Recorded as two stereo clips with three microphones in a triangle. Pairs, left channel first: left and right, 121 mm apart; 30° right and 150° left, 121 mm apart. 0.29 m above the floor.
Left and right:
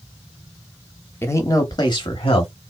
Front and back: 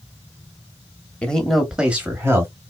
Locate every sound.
1.2 s a man speaking: 40° left, 1.0 m; by 2.5 s 90° left, 1.3 m